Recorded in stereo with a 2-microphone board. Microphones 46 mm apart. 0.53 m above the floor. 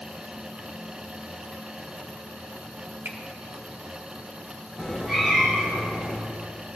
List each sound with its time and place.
3.0 s a finger snap: 55° right (ahead or behind), 1.1 m
4.8 s a cat meowing: 5° right (ahead or behind), 3.5 m